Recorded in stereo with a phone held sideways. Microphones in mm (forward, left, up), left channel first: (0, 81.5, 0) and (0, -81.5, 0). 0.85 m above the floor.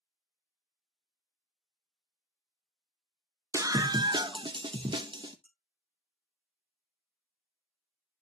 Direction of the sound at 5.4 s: 10° left (ahead or behind).